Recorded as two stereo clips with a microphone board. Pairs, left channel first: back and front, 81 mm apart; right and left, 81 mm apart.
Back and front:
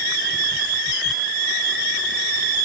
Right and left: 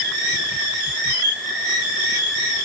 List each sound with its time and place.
Only background noise.